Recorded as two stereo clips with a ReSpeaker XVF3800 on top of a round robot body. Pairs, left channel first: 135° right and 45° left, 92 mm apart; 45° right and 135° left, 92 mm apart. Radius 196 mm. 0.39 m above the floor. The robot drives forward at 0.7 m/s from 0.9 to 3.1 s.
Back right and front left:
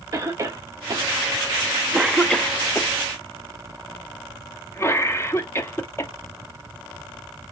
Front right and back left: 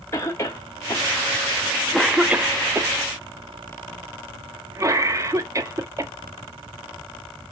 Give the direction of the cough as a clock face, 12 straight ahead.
12 o'clock.